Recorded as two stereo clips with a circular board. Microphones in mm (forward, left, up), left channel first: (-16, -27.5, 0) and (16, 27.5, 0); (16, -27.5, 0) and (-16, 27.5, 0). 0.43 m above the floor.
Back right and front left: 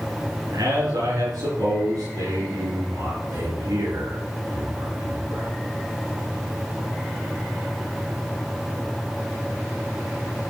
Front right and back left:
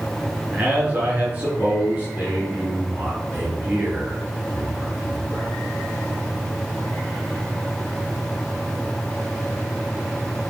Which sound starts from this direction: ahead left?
A man speaking, at 0.5 s.